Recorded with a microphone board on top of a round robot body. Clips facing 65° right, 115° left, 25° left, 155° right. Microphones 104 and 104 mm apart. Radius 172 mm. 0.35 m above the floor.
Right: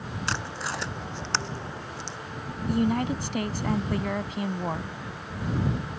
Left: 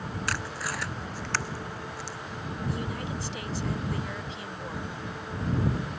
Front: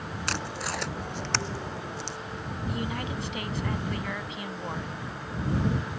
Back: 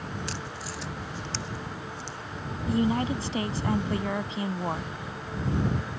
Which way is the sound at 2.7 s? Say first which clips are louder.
Right 12 dB, back 9 dB; 100° right.